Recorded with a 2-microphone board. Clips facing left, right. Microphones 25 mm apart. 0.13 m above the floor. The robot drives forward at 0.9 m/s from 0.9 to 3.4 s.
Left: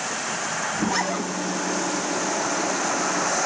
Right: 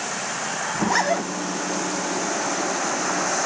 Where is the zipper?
40° right (ahead or behind), 7 m.